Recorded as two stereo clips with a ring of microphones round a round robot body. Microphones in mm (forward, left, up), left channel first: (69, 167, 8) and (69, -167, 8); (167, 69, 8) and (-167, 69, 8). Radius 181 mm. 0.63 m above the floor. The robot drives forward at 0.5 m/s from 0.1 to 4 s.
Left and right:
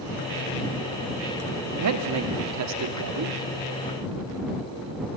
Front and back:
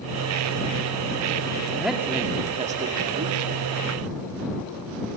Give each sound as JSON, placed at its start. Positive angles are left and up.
{"t": 1.8, "sound": "a man speaking", "azimuth_deg": -90, "distance_m": 1.3}